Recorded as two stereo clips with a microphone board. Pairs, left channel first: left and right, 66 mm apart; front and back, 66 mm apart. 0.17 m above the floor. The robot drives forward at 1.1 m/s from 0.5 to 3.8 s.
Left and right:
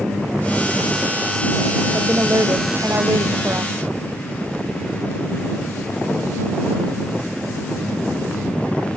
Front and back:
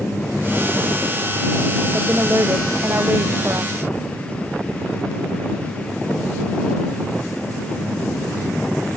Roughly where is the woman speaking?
Behind right.